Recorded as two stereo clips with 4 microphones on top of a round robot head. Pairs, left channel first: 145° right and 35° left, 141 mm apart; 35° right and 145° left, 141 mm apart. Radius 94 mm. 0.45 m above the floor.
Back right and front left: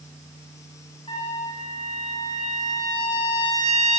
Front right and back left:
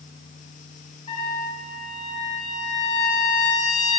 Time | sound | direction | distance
1.1 | a trumpet | 80° right | 6 m